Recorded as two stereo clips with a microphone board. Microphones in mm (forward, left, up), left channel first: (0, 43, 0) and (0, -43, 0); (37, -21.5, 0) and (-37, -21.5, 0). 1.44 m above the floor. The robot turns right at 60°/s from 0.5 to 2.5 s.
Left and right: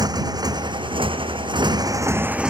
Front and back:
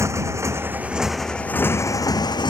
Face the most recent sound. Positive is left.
turn(degrees=-10)